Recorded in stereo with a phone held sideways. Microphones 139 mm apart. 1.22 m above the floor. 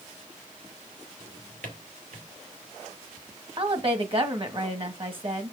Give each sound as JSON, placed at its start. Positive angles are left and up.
{"t": 1.2, "sound": "a drawer", "side_deg": -80, "distance_m": 1.8}
{"t": 3.6, "sound": "a woman speaking", "side_deg": -40, "distance_m": 1.5}